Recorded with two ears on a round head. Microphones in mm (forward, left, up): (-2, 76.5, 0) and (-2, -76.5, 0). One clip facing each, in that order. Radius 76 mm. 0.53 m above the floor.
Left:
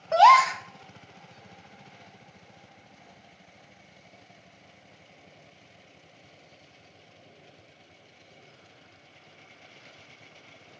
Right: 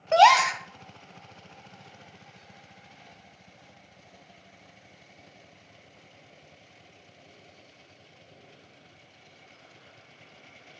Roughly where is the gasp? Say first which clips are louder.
Even; right.